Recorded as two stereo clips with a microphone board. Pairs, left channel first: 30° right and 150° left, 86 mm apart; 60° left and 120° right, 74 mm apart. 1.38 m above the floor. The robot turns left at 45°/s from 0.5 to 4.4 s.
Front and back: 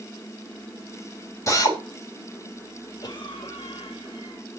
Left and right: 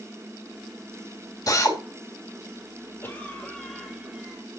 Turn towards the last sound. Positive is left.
turn(degrees=-65)